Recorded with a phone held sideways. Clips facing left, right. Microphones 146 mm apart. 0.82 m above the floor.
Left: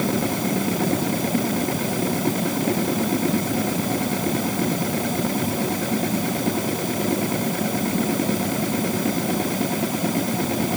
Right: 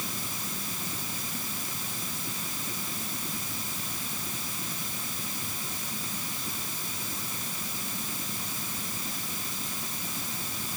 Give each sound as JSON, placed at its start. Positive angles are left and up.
{"t": 0.0, "sound": "a machine running", "side_deg": 75}